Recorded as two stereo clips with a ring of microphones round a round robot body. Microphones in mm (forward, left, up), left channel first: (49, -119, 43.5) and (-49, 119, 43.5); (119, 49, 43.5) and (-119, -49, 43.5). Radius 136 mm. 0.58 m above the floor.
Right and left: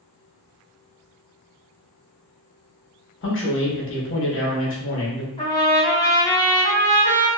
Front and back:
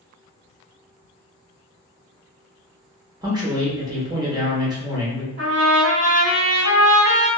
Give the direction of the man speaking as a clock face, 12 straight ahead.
3 o'clock.